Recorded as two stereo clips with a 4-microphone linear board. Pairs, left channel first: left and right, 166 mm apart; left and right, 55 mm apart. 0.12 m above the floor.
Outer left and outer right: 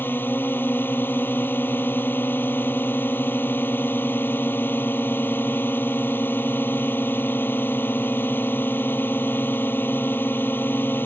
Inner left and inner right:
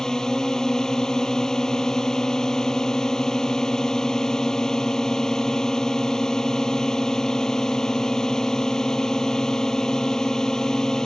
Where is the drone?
10° left (ahead or behind).